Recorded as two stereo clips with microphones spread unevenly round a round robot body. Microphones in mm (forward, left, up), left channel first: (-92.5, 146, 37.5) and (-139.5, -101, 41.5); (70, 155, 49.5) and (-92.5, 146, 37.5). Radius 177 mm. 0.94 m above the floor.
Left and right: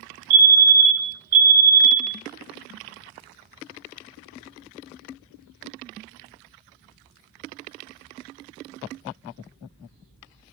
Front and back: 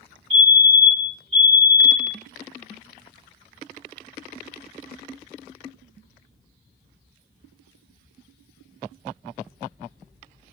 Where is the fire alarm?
145° right, 2.5 m.